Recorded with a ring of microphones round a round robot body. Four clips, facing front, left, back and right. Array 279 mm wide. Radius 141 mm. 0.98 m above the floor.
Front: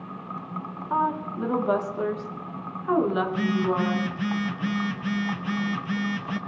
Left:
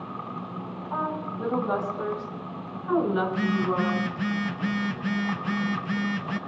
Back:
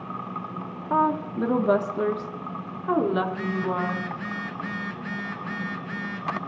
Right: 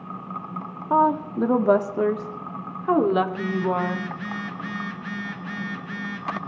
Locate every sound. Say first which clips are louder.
0.9 s a woman speaking: right 11 dB, back 3 dB; 115° right, 1.7 m; by 4.1 s 90° right, 3 m
3.3 s a phone buzzing: right 1 dB, front 3 dB; 40° left, 1.3 m